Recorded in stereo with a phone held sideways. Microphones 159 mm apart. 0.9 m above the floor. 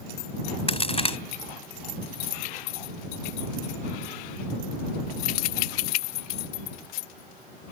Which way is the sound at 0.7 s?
40° left (ahead or behind).